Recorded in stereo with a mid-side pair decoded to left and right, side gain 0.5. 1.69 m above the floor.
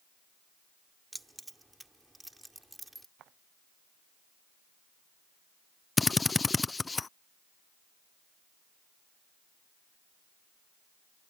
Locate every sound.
1.1 s keys jangling: 10° right
3.2 s footsteps: 70° right
6.0 s a drill: 25° left